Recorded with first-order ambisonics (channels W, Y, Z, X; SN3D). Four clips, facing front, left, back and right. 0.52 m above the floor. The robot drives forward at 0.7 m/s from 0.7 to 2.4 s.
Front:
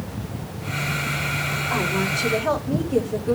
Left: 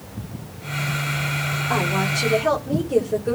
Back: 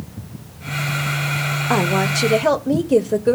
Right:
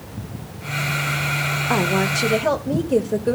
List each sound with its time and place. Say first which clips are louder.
1.7 s a woman speaking: right 2 dB, back 6 dB; 155° right, 1.1 m; by 3.4 s 165° right, 1.5 m